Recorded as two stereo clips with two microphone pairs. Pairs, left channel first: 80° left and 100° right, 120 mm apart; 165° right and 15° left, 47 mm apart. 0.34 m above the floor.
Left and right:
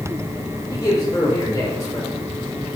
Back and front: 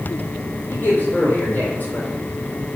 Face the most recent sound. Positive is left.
turn(degrees=140)